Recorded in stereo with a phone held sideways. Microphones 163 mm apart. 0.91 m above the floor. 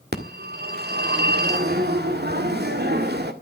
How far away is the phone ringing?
About 1.7 m.